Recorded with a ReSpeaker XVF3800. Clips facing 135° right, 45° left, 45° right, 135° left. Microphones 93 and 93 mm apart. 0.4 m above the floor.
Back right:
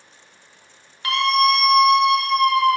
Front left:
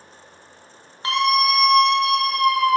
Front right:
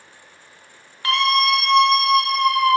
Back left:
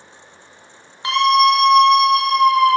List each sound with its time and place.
1.0 s a scream: 85° left, 1.0 m; by 2.8 s 170° right, 1.3 m